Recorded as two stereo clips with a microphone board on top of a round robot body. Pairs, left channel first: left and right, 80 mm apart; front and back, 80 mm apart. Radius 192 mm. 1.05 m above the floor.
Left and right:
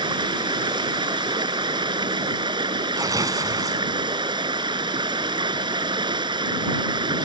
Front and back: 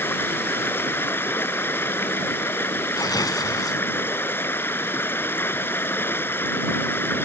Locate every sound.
0.0 s running water: 65° right
3.0 s tearing paper: 45° right